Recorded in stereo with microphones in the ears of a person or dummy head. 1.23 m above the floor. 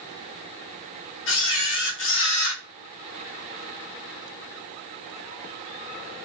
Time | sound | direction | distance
1.3 | a camera shutter | 65° left (ahead or behind) | 1.0 m